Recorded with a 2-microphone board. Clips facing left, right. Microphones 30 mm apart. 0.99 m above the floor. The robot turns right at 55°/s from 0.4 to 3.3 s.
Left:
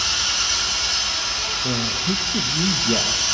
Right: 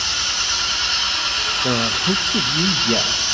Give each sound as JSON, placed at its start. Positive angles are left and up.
{"t": 0.0, "sound": "an engine running", "azimuth_deg": -170, "distance_m": 4.5}
{"t": 1.6, "sound": "a man speaking", "azimuth_deg": -85, "distance_m": 0.8}